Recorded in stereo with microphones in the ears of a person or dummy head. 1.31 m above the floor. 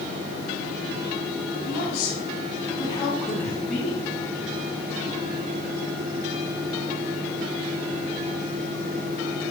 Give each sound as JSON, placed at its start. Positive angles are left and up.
{"t": 1.6, "sound": "a woman speaking", "side_deg": 50, "distance_m": 4.0}